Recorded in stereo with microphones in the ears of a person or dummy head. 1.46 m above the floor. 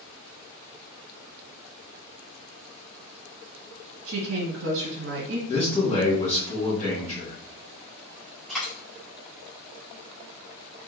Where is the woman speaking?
75° right (ahead or behind), 1.5 m.